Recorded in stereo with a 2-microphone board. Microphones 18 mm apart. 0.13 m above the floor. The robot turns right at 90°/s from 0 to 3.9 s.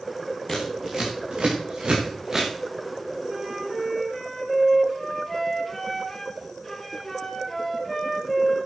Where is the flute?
40° right, 2.5 m; by 8.6 s 20° left, 2.5 m.